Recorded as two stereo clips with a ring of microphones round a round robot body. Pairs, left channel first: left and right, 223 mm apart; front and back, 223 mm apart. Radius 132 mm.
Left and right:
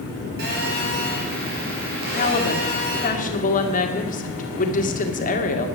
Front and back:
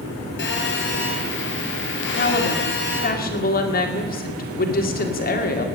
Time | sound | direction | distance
0.4 | a phone buzzing | 40° right | 4.5 m
2.1 | a woman speaking | 40° left | 2 m